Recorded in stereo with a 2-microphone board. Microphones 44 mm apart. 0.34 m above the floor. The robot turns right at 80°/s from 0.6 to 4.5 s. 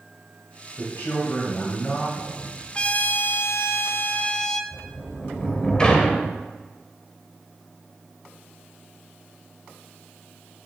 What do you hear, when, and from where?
0.8 s a man speaking: 75° left, 2 m; by 2.6 s 135° right, 2 m
2.8 s a trumpet: 25° left, 0.5 m; by 4.6 s 165° left, 0.5 m
4.7 s a sliding door: 20° left (ahead or behind), 1.1 m